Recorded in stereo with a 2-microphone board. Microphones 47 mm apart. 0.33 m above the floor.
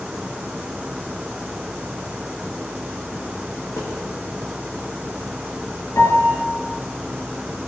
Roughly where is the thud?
Left.